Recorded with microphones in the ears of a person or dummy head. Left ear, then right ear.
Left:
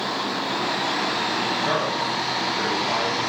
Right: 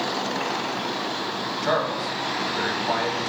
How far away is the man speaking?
About 2.5 m.